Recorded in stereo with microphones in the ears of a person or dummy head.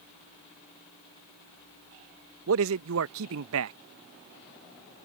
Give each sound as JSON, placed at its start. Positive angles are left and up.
{"t": 2.5, "sound": "a man speaking", "side_deg": -80}